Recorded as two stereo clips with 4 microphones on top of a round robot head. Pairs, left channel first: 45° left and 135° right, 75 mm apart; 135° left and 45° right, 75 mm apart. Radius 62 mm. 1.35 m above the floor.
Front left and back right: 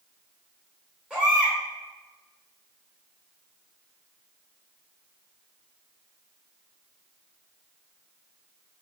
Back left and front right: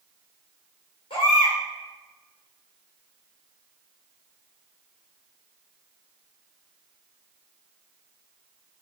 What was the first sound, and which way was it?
A baby crying, 150° left.